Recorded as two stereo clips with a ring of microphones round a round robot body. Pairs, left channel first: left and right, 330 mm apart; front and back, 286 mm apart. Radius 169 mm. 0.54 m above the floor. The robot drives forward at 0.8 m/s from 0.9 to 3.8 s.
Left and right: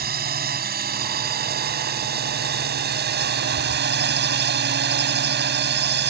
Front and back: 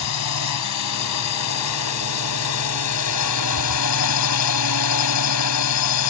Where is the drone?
30° right; by 6.1 s 35° right.